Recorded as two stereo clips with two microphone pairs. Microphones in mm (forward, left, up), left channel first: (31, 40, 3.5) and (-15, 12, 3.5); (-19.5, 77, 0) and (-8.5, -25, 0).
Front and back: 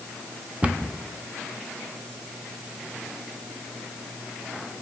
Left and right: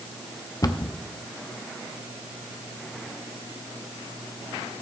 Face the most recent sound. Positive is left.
turn(degrees=145)